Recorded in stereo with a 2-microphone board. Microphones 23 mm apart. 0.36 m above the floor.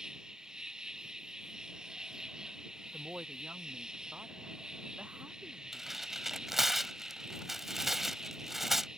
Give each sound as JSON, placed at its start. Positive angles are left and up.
{"t": 0.0, "sound": "an insect", "side_deg": -30}
{"t": 2.9, "sound": "a woman speaking", "side_deg": -60}
{"t": 5.7, "sound": "tearing paper", "side_deg": -10}